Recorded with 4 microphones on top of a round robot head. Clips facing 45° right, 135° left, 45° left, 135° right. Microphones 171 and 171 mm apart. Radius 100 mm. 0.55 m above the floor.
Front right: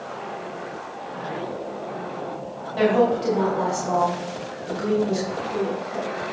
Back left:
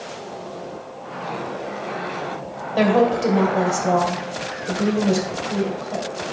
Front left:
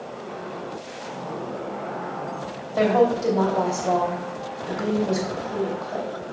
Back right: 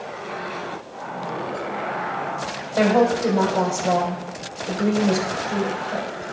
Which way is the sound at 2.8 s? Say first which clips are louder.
Back left 2 dB, back right 1 dB; 170° left.